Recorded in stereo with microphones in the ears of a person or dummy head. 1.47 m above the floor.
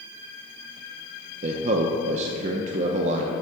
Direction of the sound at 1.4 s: 40° right (ahead or behind).